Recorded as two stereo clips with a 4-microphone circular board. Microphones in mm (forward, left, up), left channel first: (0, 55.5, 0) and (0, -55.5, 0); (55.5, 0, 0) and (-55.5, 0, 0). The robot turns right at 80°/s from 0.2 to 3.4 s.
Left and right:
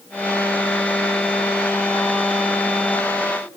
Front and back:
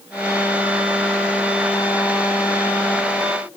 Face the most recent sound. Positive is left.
No sound to turn to.